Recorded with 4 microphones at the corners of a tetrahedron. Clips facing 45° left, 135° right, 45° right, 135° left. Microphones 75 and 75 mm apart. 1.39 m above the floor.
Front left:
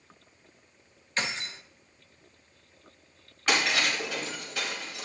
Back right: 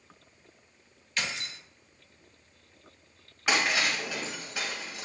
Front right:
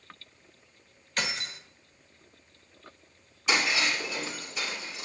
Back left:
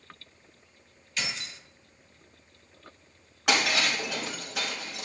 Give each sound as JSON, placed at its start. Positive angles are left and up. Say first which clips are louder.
{"t": 1.2, "sound": "keys jangling", "louder": "front left 2 dB, front right 3 dB", "azimuth_deg": -10, "distance_m": 1.2}
{"t": 3.5, "sound": "breaking glass", "louder": "even, back left 1 dB", "azimuth_deg": 150, "distance_m": 5.5}